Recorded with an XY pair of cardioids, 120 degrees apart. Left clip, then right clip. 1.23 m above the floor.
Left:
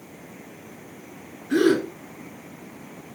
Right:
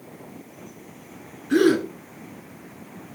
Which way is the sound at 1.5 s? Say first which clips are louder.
Right 1 dB; 15° right.